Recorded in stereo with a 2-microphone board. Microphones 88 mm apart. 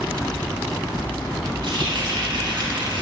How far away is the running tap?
About 1.6 m.